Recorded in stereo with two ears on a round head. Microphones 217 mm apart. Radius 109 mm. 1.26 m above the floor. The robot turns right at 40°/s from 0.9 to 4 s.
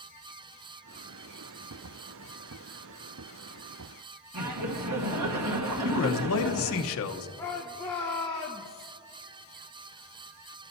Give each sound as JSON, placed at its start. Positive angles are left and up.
{"t": 4.3, "sound": "laughter", "side_deg": -75, "distance_m": 1.5}
{"t": 5.8, "sound": "a man speaking", "side_deg": 60, "distance_m": 1.0}
{"t": 7.4, "sound": "a shout", "side_deg": 10, "distance_m": 1.1}